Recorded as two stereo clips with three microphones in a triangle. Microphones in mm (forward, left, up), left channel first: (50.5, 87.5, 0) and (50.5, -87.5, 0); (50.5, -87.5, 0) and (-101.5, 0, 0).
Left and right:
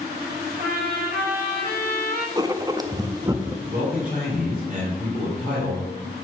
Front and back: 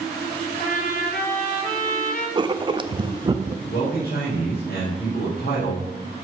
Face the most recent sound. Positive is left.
turn(degrees=-50)